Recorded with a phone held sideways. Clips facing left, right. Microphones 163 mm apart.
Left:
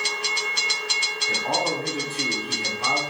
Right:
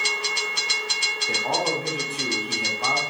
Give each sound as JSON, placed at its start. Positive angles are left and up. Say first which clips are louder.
{"t": 1.3, "sound": "a man speaking", "louder": "even", "side_deg": -15, "distance_m": 0.7}